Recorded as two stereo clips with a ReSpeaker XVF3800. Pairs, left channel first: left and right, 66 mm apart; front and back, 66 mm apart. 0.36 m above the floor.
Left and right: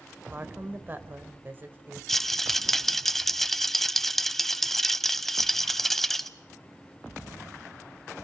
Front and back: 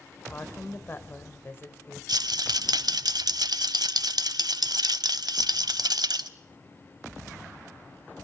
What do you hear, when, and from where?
0.3 s a woman speaking: 40° right, 1.5 m
2.1 s a rattle: 175° left, 0.5 m